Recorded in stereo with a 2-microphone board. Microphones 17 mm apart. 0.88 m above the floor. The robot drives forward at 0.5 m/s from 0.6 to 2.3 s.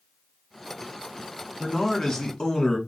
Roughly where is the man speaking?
Left.